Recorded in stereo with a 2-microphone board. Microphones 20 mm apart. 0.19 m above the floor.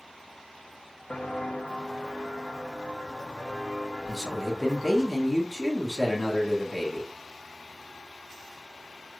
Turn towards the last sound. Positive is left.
turn(degrees=0)  # may be behind; listen again after turning